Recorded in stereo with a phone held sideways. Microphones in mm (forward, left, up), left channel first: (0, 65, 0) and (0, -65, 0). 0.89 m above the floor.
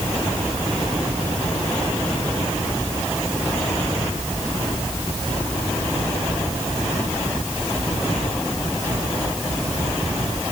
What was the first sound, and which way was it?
Only background noise.